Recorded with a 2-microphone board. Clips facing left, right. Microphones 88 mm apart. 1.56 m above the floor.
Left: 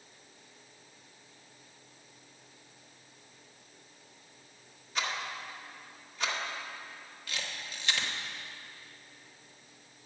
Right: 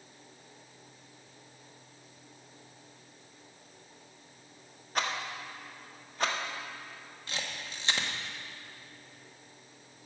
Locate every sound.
5.0 s a rattle: 45° right (ahead or behind), 1.3 m
7.3 s a camera shutter: 30° right (ahead or behind), 1.2 m